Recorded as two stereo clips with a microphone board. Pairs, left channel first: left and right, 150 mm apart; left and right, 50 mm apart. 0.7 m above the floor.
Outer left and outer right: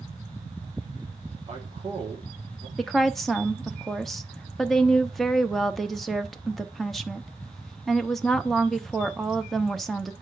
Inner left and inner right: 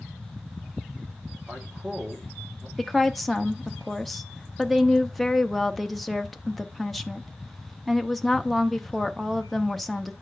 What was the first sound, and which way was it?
A man speaking, 40° right (ahead or behind).